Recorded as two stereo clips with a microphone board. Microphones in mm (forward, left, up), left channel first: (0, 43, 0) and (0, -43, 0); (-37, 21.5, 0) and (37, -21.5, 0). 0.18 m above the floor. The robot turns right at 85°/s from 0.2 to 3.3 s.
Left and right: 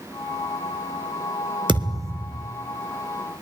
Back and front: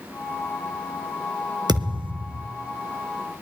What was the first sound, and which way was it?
A thud, 65° right.